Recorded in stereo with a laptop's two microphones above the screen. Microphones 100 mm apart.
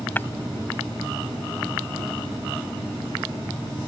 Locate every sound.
0.2 s breaking glass: 20° left (ahead or behind)